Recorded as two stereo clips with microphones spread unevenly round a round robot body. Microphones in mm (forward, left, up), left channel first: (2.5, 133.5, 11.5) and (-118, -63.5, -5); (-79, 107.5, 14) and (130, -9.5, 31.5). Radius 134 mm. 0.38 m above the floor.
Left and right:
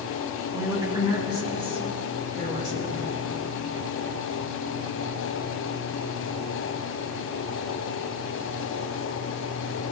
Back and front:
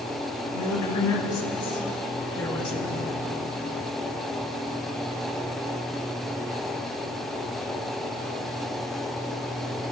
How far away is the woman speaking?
About 5.5 m.